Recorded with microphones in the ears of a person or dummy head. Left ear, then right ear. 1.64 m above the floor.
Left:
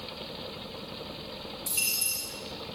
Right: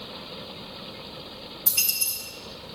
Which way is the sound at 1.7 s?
25° right (ahead or behind).